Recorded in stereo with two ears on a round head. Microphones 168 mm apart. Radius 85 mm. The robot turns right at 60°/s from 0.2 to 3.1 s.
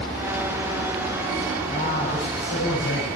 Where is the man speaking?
25° left, 6 m; by 3.1 s 110° left, 6 m.